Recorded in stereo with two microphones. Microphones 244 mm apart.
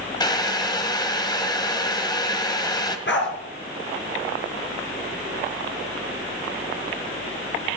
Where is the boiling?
15° left (ahead or behind), 1.7 m.